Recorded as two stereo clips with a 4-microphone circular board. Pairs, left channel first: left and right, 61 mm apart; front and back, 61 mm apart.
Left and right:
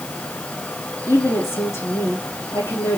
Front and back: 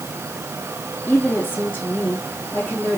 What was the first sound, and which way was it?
A woman speaking, 55° left.